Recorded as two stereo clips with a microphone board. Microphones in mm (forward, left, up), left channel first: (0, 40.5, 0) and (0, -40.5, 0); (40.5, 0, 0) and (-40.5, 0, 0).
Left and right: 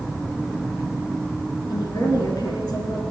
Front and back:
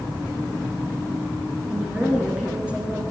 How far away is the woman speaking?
About 3.5 m.